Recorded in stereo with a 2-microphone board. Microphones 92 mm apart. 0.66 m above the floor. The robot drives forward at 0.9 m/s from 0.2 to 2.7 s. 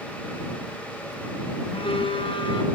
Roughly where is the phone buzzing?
Left.